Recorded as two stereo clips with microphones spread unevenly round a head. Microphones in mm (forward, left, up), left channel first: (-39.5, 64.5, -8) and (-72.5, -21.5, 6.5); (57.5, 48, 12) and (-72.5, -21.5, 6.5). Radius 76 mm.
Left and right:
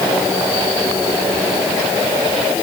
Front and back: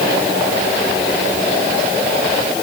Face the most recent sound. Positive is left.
No sound to turn to.